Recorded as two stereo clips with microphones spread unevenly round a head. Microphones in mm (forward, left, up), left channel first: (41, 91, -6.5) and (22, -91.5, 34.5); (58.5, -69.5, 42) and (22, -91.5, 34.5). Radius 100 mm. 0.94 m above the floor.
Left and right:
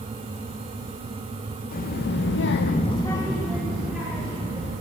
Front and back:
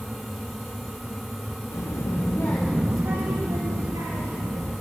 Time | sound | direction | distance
1.7 | a child speaking | 45° left | 1.3 m